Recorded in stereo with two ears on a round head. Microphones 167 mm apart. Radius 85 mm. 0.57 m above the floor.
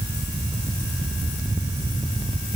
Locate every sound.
Only background noise.